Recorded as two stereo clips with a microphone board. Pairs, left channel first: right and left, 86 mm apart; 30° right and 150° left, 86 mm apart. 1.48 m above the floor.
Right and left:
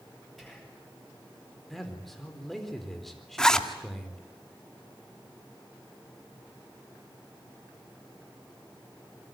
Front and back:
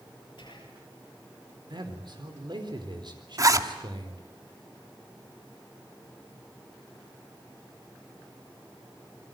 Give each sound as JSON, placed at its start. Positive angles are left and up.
{"t": 0.4, "sound": "whispering", "azimuth_deg": 0, "distance_m": 9.5}
{"t": 1.7, "sound": "a man speaking", "azimuth_deg": -175, "distance_m": 4.0}
{"t": 3.4, "sound": "a zipper", "azimuth_deg": -170, "distance_m": 1.4}